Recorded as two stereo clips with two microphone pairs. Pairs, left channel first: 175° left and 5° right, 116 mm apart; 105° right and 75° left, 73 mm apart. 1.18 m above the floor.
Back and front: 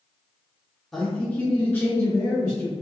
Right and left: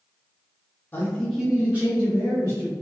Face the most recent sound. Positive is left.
turn(degrees=110)